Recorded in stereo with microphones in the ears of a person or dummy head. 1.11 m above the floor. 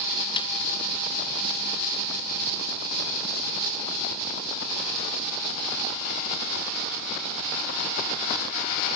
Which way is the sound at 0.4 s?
25° left (ahead or behind).